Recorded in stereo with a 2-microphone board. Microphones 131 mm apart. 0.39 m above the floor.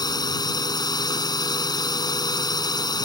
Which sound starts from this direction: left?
A drone, at 0.0 s.